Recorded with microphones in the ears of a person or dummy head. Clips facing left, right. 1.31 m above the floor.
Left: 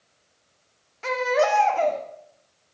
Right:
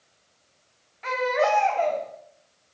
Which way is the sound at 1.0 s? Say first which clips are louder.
Left 2 dB; 50° left (ahead or behind).